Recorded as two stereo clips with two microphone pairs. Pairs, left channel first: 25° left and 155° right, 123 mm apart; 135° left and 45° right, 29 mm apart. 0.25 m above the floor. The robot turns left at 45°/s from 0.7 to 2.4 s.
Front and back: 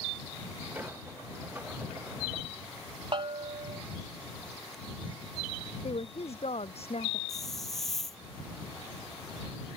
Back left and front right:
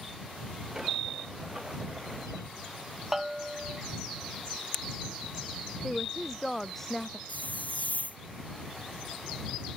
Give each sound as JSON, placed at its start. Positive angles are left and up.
{"t": 3.1, "sound": "a bell", "azimuth_deg": -125}
{"t": 5.8, "sound": "a woman speaking", "azimuth_deg": 55}
{"t": 7.3, "sound": "a hiss", "azimuth_deg": 115}